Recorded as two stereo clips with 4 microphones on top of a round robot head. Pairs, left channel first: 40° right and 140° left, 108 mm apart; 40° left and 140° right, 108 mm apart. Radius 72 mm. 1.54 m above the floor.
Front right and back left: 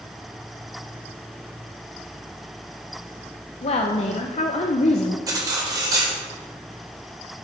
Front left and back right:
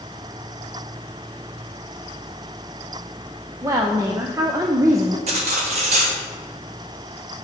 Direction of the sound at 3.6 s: 75° right.